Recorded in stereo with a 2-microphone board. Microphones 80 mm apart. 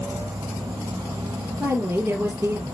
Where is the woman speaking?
30° right (ahead or behind), 3 m.